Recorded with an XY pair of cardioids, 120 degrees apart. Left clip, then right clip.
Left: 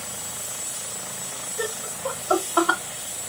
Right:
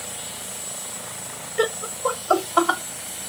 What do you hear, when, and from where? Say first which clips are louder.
1.6 s laughter: right 7 dB; 65° right, 0.5 m; by 2.8 s straight ahead, 0.7 m